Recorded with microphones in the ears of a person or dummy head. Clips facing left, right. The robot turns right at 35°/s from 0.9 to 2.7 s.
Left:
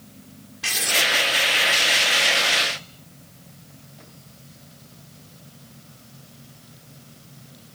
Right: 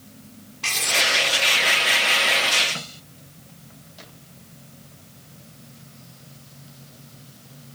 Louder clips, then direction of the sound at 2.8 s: Right 6 dB; 75° right (ahead or behind).